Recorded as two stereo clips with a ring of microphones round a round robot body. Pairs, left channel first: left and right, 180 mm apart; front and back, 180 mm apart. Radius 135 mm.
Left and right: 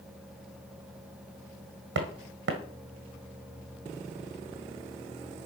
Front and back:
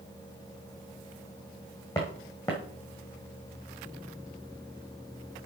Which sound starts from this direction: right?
Footsteps, at 1.9 s.